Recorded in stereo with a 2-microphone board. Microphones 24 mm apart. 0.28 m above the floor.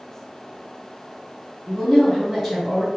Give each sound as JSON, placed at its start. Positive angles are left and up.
{"t": 1.7, "sound": "a woman speaking", "side_deg": 15, "distance_m": 1.8}